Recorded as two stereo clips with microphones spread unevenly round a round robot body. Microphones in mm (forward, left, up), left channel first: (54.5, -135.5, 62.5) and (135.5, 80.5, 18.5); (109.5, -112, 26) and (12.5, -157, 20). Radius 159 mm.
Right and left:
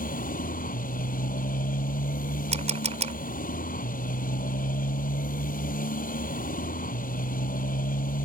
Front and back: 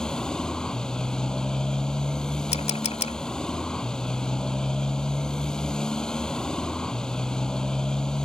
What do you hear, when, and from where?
0.0 s a motorcycle: 60° right
2.5 s a camera shutter: 10° left